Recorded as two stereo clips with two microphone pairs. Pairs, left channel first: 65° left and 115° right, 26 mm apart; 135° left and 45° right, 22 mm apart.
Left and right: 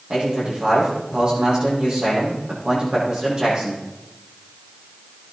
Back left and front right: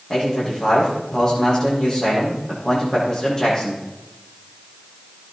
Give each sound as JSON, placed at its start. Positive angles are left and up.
{"t": 0.1, "sound": "a man speaking", "azimuth_deg": -165, "distance_m": 7.0}